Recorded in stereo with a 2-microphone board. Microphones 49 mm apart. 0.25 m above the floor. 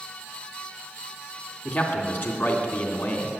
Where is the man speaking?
45° left (ahead or behind), 2.5 m.